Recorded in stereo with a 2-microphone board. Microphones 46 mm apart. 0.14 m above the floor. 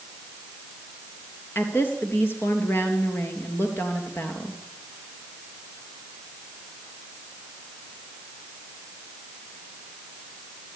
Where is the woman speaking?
55° left (ahead or behind), 3.5 m.